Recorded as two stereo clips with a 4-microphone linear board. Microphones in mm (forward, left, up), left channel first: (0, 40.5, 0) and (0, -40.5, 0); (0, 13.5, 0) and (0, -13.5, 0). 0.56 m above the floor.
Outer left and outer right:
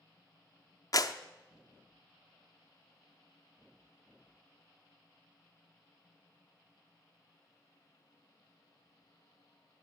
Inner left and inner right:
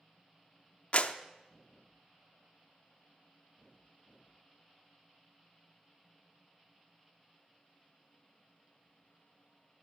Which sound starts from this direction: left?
A clap, at 0.9 s.